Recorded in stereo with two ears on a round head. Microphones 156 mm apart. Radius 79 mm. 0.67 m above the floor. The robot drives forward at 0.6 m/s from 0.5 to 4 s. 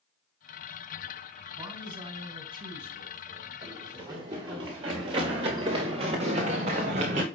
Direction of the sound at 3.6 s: 25° right (ahead or behind).